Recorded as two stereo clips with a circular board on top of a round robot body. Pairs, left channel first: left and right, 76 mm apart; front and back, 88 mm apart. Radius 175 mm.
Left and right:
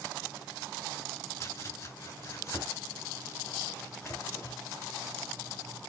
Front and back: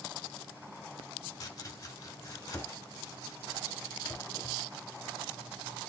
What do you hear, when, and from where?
1.4 s chopping: 50° left, 2.5 m